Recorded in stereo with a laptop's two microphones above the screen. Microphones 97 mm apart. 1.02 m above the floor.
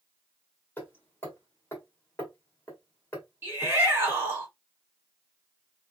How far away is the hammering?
About 1.5 m.